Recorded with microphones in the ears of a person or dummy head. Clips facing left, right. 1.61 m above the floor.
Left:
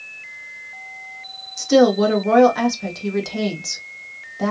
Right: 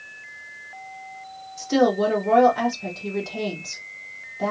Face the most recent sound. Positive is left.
turn(degrees=75)  # may be behind; listen again after turning